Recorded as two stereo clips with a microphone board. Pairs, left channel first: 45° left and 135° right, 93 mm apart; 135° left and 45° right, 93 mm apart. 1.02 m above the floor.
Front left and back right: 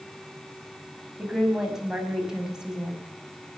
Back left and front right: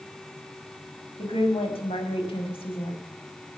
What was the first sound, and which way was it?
A woman speaking, 140° left.